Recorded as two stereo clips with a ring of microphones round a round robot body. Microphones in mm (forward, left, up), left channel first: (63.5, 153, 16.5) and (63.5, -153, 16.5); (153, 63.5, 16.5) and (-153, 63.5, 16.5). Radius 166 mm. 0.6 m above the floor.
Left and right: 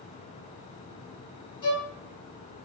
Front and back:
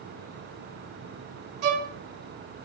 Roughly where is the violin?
Behind.